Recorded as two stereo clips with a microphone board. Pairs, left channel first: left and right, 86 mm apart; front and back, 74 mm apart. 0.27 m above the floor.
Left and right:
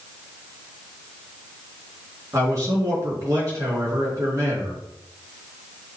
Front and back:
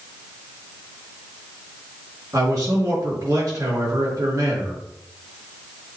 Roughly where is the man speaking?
Behind right.